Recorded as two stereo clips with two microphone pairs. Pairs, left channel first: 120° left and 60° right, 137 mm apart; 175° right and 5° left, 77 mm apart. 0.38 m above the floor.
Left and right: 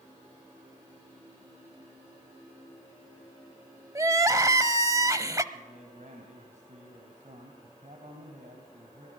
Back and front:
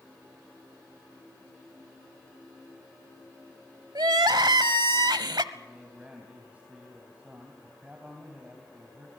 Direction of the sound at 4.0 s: 5° left.